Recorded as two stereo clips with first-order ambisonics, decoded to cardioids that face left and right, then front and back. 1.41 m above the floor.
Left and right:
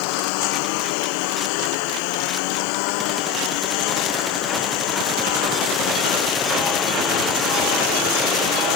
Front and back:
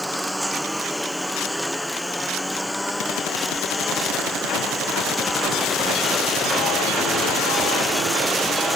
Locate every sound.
0.0 s a lawn mower: 95° left; by 8.8 s 85° left